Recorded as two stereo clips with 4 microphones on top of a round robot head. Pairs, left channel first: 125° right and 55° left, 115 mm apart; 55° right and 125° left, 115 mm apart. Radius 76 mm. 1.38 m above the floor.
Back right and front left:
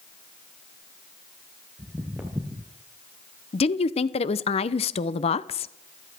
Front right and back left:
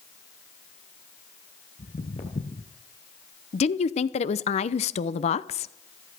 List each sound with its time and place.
1.8 s footsteps: 20° right, 1.9 m
3.5 s a woman speaking: 85° right, 0.7 m